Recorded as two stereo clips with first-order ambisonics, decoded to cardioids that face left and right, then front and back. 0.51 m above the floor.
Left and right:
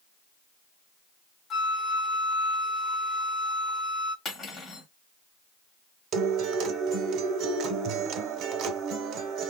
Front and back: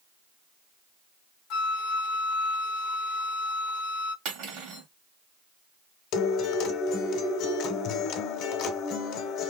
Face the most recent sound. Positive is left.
turn(degrees=-45)